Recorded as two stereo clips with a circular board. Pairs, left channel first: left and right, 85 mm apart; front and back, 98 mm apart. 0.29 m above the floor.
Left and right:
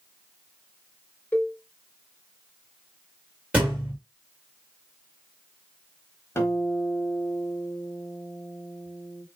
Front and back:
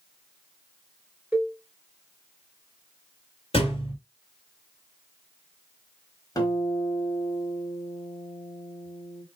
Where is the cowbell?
130° left, 0.9 m.